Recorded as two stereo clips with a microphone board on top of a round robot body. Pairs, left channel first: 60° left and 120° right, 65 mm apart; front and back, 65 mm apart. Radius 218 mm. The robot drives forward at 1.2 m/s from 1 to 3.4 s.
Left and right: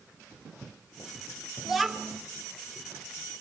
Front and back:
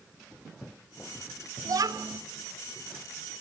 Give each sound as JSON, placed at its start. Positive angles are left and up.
{"t": 1.6, "sound": "a child speaking", "azimuth_deg": 145, "distance_m": 1.8}